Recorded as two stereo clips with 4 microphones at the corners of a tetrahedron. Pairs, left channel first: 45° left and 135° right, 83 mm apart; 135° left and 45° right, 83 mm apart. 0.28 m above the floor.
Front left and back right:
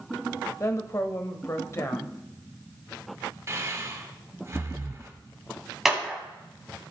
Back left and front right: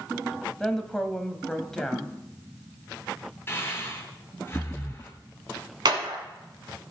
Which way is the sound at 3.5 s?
175° right.